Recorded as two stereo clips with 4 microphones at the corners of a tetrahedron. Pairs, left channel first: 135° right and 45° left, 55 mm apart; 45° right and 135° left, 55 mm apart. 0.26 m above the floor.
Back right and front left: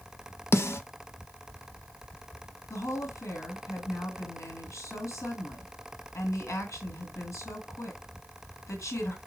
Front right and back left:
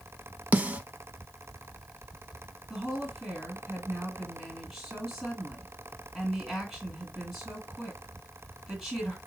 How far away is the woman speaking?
About 2 m.